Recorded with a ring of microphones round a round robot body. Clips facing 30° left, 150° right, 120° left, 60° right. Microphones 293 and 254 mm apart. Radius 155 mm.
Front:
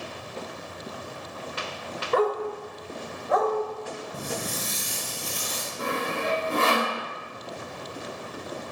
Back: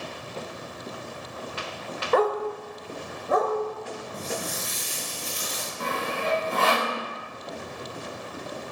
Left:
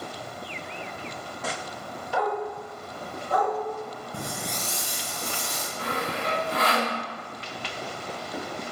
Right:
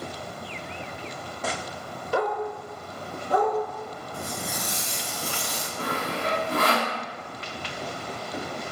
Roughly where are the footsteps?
Left.